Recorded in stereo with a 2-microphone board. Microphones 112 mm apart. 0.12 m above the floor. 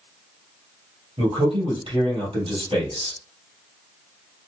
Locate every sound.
1.2 s a man speaking: 55° right (ahead or behind), 3 m